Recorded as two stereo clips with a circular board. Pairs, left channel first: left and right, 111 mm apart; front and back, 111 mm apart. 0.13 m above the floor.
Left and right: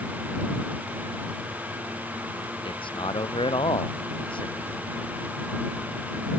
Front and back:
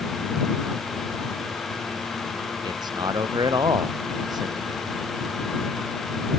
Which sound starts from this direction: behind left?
A man speaking, at 2.6 s.